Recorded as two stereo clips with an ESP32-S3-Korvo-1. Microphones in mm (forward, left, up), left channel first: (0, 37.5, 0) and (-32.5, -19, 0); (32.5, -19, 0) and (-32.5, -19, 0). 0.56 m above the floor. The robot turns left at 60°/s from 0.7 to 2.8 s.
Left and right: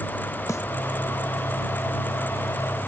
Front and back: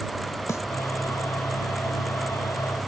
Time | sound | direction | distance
0.5 | a snare drum | 30° left | ?